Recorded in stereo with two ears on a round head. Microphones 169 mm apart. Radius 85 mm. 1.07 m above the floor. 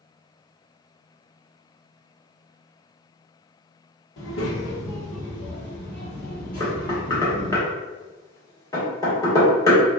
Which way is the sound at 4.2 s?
65° left (ahead or behind).